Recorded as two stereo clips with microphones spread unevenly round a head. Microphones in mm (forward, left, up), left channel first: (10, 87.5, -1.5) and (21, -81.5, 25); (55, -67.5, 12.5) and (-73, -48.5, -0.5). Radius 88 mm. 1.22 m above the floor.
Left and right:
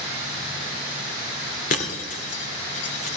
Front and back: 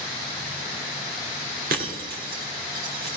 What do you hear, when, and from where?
1.7 s breaking glass: 145° left, 1.5 m